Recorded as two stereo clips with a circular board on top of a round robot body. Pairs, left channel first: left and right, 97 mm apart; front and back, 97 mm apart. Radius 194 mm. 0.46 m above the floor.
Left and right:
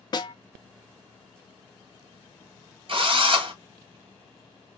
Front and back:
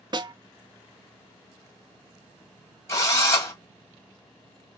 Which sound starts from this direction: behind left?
A snare drum, at 0.1 s.